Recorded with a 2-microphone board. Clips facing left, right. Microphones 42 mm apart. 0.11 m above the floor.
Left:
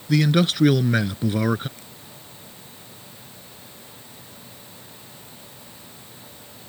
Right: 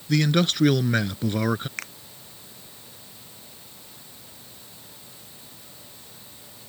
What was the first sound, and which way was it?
A man speaking, 5° left (ahead or behind).